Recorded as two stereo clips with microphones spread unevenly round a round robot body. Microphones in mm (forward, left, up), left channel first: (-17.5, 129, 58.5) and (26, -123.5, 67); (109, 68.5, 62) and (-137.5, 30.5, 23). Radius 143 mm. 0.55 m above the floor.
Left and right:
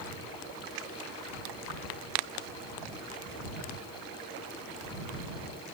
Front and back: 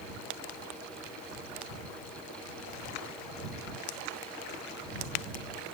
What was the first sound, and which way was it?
Only background noise.